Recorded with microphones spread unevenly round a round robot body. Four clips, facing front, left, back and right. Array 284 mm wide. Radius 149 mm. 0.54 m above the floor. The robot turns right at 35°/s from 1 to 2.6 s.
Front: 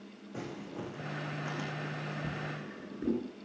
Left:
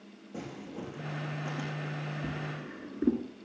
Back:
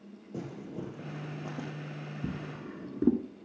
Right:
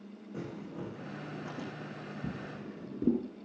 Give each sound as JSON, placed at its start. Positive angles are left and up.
{"t": 0.3, "sound": "crumpling", "azimuth_deg": 170, "distance_m": 6.0}
{"t": 2.2, "sound": "a drawer", "azimuth_deg": 175, "distance_m": 1.6}